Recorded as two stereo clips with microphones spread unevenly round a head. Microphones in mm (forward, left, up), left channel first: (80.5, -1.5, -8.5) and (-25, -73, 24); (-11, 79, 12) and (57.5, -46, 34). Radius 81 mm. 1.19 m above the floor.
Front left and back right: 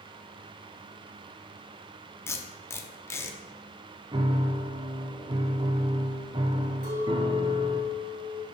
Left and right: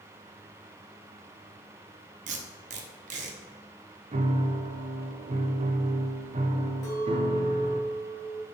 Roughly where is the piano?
Right.